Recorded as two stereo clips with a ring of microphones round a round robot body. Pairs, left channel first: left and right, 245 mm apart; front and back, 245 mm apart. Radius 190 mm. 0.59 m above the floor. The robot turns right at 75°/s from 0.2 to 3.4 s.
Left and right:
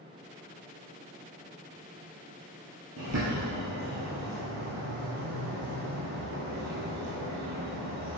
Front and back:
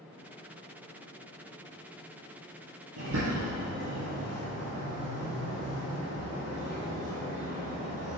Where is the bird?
140° right, 2.5 m; by 8.2 s 110° right, 2.5 m.